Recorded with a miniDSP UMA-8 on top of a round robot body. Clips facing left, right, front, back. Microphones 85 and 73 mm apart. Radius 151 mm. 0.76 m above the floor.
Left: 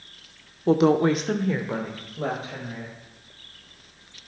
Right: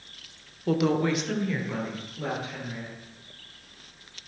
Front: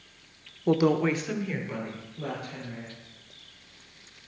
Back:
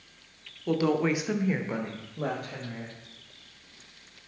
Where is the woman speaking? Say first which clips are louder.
Left 6 dB, front 2 dB; 45° left, 0.8 m; by 2.9 s 150° left, 2 m.